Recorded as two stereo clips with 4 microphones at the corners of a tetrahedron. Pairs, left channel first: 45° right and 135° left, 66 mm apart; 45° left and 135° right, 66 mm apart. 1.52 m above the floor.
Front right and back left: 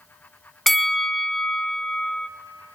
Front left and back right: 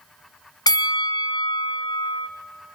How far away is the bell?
About 0.6 m.